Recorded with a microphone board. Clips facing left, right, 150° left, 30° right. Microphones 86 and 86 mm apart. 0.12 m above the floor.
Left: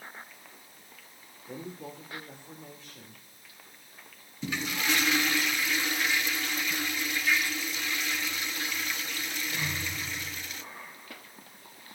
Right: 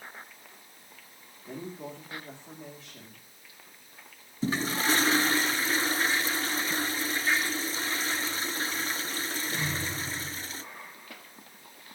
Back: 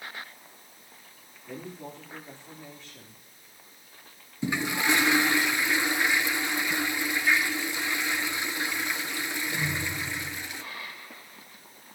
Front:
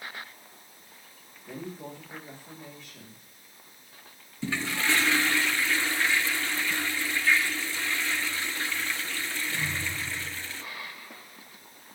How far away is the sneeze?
I don't hear a sneeze.